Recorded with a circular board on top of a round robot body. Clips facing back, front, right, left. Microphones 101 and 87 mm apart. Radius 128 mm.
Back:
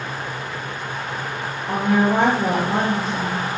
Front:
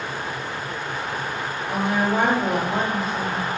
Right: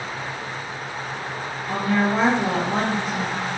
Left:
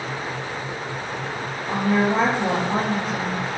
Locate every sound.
1.7 s a woman speaking: 150° left, 3 m